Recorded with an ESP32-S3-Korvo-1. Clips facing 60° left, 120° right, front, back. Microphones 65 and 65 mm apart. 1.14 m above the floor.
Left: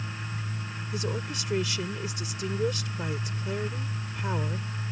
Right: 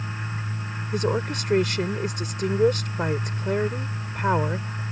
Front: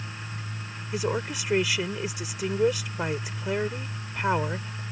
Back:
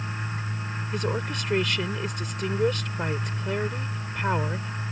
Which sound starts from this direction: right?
A woman speaking, at 0.9 s.